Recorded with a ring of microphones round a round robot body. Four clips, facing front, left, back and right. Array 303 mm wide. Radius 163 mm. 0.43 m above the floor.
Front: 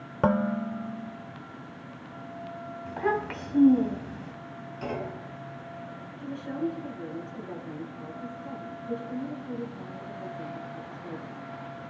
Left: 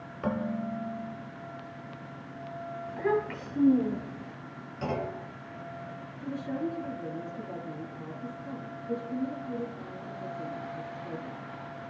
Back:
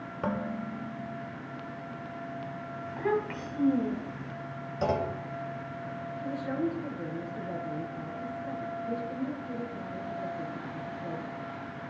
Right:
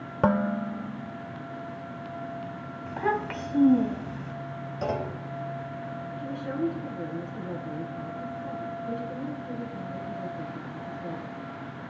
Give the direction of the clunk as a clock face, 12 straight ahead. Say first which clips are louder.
Right 2 dB, back 5 dB; 5 o'clock.